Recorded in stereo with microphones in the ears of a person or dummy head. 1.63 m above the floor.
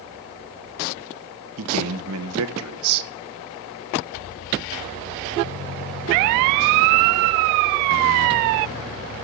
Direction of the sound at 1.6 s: 85° right.